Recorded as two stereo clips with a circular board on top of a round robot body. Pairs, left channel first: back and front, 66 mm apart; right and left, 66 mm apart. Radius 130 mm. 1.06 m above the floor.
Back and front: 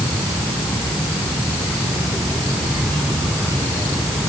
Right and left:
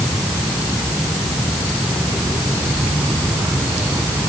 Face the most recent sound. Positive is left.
No sound to turn to.